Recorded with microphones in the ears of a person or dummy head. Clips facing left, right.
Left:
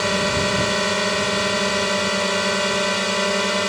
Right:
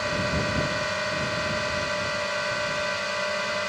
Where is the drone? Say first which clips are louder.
Left 6 dB; 65° left (ahead or behind).